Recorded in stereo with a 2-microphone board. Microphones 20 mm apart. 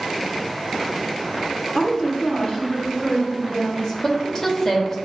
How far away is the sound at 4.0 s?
About 0.6 m.